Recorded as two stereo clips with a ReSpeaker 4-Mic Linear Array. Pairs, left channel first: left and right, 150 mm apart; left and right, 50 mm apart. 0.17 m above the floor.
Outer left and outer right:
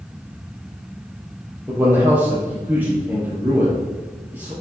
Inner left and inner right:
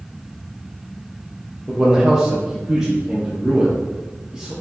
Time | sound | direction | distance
1.7 | a man speaking | 10° right (ahead or behind) | 3.5 m